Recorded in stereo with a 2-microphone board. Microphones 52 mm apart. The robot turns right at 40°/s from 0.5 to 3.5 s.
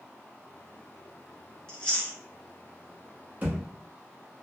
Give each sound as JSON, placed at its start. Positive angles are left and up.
{"t": 1.7, "sound": "chewing", "side_deg": 15, "distance_m": 1.0}
{"t": 3.4, "sound": "a thud", "side_deg": -30, "distance_m": 1.2}